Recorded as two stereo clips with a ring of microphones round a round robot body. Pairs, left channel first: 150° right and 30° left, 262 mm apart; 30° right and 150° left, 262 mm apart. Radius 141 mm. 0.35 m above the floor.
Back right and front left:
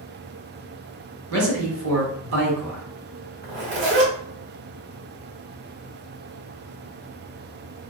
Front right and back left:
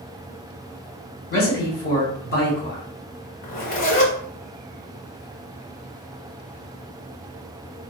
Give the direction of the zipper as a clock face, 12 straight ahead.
12 o'clock.